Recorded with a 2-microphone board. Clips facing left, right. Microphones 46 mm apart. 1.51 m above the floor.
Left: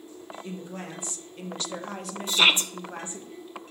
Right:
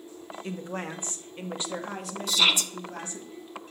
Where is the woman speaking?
60° right (ahead or behind), 1.1 m; by 3.3 s 30° left (ahead or behind), 1.4 m.